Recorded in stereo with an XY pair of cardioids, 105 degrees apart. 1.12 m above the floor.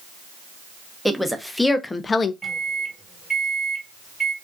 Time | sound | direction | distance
1.1 | a woman speaking | straight ahead | 0.9 m
2.4 | a microwave | 10° right | 1.3 m